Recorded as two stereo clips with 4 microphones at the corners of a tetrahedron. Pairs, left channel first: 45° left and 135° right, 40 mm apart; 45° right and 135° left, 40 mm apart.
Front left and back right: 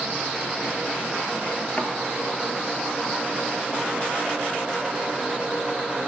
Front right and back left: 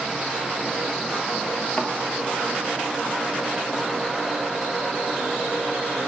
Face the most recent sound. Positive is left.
turn(degrees=0)